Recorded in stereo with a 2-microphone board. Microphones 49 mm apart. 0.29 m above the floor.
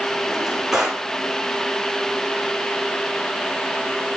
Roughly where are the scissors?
No scissors in this recording.